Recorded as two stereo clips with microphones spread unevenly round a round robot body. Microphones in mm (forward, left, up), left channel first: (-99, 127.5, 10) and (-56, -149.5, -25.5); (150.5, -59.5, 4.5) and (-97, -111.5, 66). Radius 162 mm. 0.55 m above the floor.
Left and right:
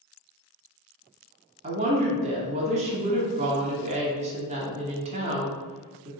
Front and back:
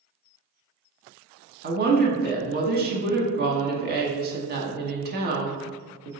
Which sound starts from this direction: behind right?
A woman speaking, at 1.6 s.